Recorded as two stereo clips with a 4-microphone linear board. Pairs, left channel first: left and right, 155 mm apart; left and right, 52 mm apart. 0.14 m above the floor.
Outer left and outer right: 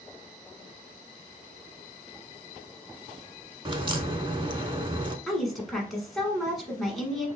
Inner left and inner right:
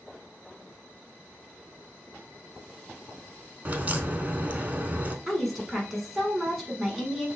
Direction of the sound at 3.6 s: 35° right (ahead or behind).